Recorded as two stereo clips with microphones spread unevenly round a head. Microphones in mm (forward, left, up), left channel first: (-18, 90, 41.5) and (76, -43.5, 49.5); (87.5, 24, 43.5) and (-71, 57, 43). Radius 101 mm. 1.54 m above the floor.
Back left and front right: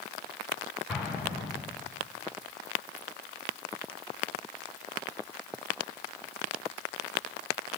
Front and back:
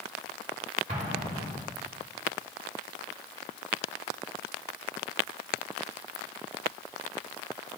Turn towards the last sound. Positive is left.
turn(degrees=-140)